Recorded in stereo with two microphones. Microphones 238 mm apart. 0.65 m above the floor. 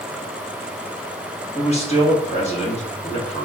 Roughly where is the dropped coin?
No dropped coin in this recording.